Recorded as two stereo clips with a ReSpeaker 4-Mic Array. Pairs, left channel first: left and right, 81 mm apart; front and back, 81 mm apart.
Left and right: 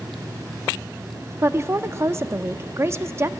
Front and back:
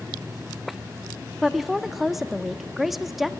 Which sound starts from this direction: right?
A woman speaking, at 1.4 s.